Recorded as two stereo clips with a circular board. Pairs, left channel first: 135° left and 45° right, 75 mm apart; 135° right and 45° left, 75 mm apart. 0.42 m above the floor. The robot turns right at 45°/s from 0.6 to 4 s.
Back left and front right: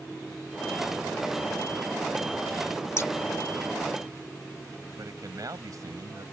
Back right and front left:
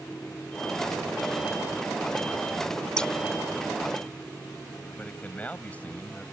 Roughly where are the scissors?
Behind left.